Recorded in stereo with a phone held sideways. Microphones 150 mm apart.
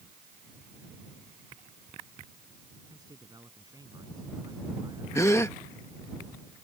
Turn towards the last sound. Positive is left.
turn(degrees=20)  # may be behind; listen again after turning